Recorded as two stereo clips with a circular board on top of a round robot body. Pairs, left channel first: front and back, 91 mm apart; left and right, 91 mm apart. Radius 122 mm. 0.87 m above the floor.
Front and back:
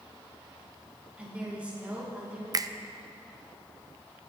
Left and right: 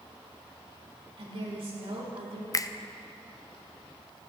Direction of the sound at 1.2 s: 105° right.